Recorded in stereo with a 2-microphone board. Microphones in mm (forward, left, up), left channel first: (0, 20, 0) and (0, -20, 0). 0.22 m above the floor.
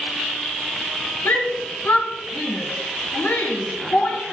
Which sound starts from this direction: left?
A shout, at 1.2 s.